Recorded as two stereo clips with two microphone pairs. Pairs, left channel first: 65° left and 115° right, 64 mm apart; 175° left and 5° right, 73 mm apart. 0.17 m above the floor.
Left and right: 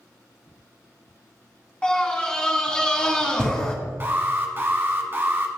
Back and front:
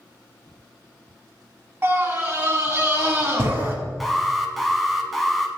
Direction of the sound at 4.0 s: 100° right.